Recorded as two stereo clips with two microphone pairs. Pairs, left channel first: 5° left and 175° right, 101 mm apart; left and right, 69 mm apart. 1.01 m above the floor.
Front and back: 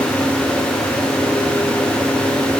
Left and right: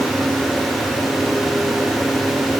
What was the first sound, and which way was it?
Only background noise.